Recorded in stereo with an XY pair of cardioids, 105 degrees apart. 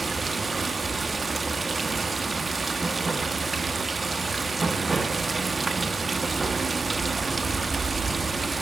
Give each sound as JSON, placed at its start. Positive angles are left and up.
{"t": 0.0, "sound": "running water", "azimuth_deg": -20, "distance_m": 1.2}